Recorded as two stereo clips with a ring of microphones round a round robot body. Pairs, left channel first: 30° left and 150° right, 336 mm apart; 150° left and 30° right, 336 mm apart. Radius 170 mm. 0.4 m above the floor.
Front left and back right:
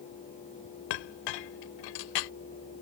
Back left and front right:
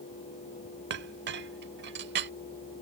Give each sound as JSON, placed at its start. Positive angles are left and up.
{"t": 0.9, "sound": "a clink", "azimuth_deg": 30}